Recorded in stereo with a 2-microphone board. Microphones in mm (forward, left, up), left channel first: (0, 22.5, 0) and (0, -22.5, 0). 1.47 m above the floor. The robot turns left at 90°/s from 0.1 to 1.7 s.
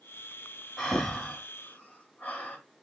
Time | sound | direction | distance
0.8 | breathing | 10° right (ahead or behind) | 1.1 m